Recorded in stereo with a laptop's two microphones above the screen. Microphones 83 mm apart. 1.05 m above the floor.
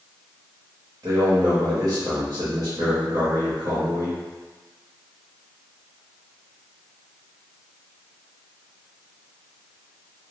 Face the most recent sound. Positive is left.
turn(degrees=-35)  # may be behind; listen again after turning